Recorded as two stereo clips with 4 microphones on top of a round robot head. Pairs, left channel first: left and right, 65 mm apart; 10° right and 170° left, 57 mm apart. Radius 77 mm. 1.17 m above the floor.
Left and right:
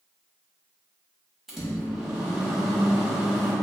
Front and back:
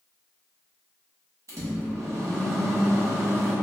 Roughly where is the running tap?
I don't hear a running tap.